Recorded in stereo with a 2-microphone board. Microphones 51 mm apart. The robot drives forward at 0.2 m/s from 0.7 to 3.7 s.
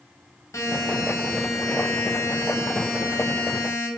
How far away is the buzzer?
About 0.8 m.